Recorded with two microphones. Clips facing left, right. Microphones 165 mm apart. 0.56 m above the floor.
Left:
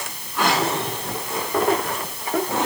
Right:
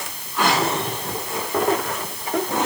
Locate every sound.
Only background noise.